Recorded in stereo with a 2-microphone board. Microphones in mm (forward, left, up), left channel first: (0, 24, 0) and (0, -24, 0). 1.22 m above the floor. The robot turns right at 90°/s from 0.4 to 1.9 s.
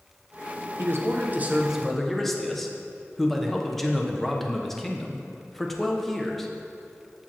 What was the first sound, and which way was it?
A man speaking, 95° right.